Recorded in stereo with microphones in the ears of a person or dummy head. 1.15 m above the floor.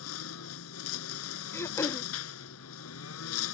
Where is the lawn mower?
85° left.